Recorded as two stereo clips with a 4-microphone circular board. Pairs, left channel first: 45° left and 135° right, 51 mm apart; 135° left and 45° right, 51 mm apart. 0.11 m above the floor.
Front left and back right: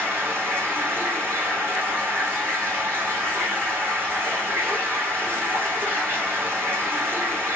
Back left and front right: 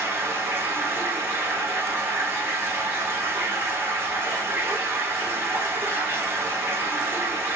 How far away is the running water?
About 4 m.